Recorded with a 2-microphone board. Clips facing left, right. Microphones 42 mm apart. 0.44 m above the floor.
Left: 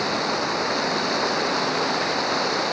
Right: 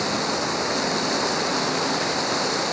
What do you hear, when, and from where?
0.0 s running water: 10° left (ahead or behind)